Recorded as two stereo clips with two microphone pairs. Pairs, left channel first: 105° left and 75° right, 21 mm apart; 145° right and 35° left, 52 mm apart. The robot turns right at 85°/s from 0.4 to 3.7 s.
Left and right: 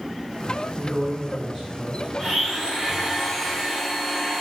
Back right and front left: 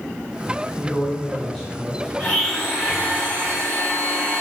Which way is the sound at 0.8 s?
170° right.